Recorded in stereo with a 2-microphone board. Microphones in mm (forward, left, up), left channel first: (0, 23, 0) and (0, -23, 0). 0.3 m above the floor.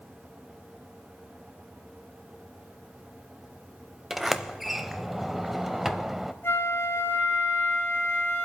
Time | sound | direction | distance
4.1 | a sliding door | 5° right (ahead or behind) | 0.6 m
6.4 | a flute | 50° left (ahead or behind) | 3 m